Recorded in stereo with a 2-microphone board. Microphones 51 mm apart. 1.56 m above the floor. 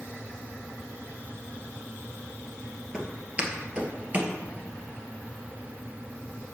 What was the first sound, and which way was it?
Footsteps, 15° right (ahead or behind).